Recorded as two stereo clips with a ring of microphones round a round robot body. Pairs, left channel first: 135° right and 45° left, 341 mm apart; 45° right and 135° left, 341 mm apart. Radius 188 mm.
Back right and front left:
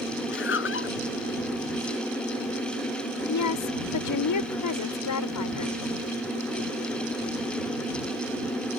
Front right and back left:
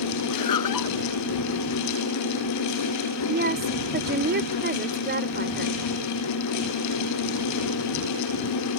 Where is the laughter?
80° right.